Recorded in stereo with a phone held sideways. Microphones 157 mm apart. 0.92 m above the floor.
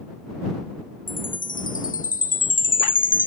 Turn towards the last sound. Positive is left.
turn(degrees=60)  # may be behind; listen again after turning